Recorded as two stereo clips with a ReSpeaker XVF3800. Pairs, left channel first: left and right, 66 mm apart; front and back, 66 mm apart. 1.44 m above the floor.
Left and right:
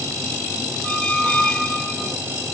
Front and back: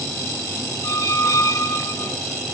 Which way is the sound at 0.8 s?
10° left.